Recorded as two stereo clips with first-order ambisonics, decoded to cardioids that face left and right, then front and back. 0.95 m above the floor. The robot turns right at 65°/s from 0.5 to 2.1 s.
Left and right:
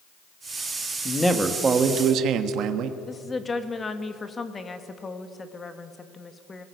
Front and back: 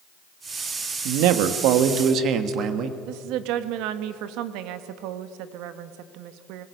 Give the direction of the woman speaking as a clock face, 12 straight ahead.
7 o'clock.